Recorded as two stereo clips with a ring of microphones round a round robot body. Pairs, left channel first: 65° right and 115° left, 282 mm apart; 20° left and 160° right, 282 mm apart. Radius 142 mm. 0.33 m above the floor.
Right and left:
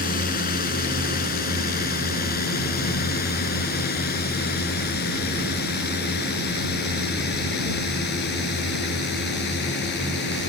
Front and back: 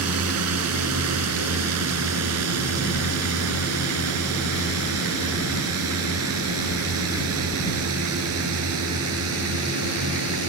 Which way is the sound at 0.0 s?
125° right.